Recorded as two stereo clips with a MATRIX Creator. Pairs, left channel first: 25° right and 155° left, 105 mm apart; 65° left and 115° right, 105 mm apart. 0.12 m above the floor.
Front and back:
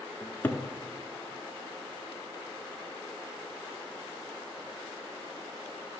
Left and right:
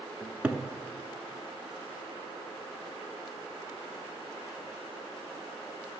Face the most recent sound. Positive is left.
turn(degrees=-55)